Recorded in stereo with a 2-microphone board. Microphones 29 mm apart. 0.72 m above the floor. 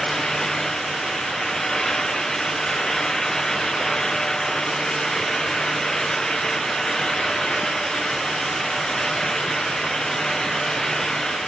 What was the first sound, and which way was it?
Only background noise.